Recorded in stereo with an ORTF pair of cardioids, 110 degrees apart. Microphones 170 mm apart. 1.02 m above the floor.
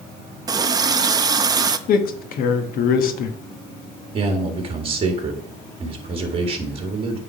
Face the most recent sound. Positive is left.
turn(degrees=-35)